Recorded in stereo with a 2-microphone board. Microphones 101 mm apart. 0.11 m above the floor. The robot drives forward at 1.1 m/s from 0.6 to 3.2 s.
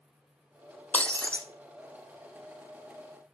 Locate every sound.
0.9 s breaking glass: 15° left (ahead or behind), 1.0 m; by 1.5 s 10° left (ahead or behind), 1.5 m